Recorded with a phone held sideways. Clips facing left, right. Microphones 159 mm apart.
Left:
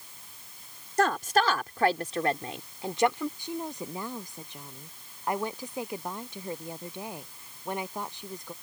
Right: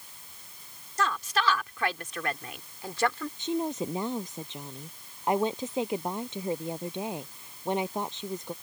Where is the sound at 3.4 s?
20° right (ahead or behind).